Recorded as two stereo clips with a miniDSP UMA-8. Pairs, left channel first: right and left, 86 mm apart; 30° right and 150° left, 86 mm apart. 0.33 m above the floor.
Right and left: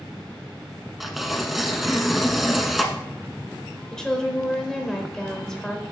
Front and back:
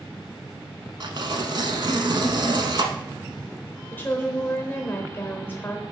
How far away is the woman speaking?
About 0.9 m.